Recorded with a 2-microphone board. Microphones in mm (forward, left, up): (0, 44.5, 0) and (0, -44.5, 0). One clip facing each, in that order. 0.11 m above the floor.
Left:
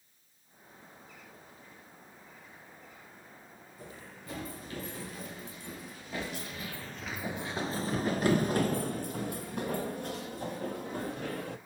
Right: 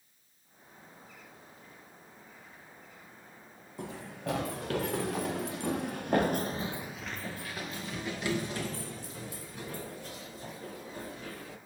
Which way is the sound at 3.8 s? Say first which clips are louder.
Right 9 dB; 85° right.